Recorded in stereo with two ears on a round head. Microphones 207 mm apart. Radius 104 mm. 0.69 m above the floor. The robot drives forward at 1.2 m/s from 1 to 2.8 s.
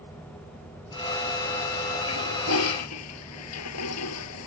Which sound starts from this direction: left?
A toilet flushing, at 2.1 s.